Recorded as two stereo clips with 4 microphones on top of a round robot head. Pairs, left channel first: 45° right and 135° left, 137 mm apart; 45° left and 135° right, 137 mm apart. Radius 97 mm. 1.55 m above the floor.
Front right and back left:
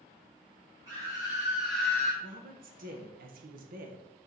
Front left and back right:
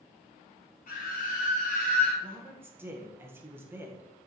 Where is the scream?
70° left, 1.9 m; by 2.1 s 15° left, 0.9 m.